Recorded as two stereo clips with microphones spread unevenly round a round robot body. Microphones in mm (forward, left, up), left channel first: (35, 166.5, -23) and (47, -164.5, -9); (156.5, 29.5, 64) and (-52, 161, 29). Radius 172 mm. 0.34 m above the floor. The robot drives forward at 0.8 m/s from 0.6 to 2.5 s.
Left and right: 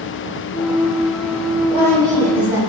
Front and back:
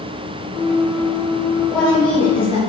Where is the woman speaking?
130° right, 1.2 m; by 2.6 s 150° right, 1.7 m.